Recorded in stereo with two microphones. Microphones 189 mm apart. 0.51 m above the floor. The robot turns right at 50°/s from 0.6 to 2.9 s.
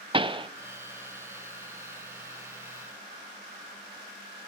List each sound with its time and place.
0.1 s a pop: 25° right (ahead or behind), 0.6 m